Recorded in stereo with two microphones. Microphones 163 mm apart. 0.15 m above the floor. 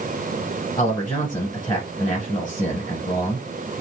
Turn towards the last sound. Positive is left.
turn(degrees=20)  # may be behind; listen again after turning